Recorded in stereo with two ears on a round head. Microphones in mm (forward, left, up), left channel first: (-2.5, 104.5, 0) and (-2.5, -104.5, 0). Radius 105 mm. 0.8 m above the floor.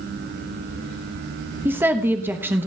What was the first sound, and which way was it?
A woman speaking, 10° right (ahead or behind).